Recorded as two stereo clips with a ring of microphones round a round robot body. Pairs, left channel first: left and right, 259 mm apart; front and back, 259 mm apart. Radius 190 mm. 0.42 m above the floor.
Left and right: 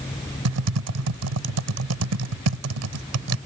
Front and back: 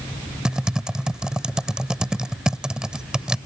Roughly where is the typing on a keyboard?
Right.